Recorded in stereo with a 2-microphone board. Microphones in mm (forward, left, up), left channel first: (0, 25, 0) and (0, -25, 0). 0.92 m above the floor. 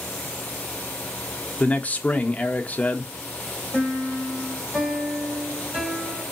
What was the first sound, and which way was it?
A man speaking, 30° left (ahead or behind).